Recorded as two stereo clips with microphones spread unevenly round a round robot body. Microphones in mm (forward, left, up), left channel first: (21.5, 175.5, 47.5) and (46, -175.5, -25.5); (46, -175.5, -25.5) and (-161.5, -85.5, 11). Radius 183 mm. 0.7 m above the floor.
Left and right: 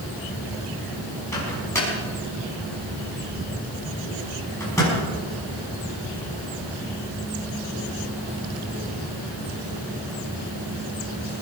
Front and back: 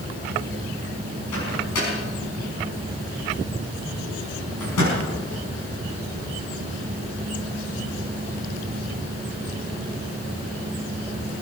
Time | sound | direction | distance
1.3 | a microwave | 10° left | 5.5 m